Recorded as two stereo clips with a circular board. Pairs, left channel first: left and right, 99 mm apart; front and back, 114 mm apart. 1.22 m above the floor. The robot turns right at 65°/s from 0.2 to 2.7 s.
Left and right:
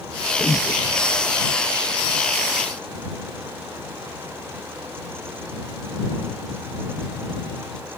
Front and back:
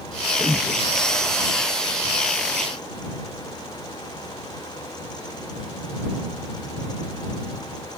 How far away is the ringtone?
No ringtone in this recording.